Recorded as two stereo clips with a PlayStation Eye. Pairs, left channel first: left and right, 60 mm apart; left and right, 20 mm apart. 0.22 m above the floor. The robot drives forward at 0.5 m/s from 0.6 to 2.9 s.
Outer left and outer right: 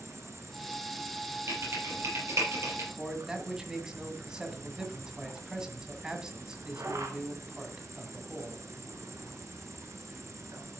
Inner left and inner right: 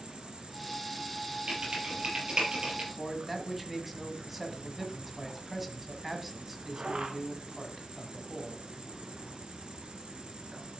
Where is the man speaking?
15° right (ahead or behind), 2 m.